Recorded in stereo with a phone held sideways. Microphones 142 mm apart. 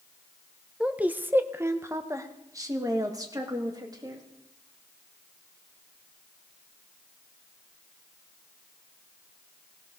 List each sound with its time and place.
0.8 s a woman speaking: 5° right (ahead or behind), 0.7 m; by 4.2 s 30° right (ahead or behind), 2.5 m